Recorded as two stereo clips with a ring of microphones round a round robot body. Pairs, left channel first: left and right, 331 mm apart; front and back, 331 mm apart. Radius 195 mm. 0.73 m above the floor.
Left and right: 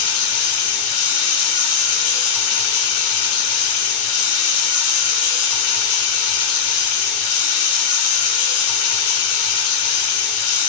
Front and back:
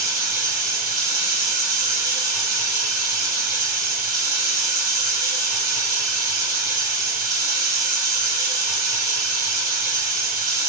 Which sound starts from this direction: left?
Running water, at 0.0 s.